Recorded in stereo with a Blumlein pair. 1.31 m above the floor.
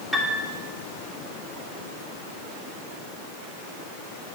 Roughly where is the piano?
Ahead.